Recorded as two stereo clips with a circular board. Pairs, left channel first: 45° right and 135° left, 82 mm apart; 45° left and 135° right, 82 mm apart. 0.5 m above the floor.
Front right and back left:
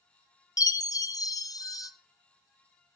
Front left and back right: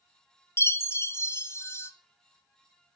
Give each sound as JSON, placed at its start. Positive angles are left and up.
{"t": 0.6, "sound": "a chime", "azimuth_deg": -10, "distance_m": 0.8}